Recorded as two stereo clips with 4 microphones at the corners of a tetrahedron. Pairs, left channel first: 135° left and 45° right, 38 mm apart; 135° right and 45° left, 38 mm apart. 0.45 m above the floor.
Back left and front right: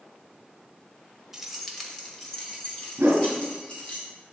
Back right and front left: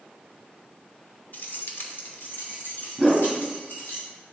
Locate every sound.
1.3 s keys jangling: 125° right, 0.8 m; by 4.0 s 165° right, 3 m
3.0 s a whoosh: 50° right, 1.2 m